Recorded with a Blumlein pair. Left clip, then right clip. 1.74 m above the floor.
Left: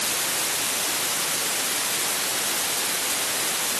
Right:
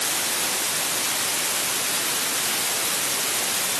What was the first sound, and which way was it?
Only background noise.